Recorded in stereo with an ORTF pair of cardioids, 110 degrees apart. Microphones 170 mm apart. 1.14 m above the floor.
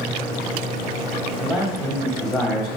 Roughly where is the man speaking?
Ahead left.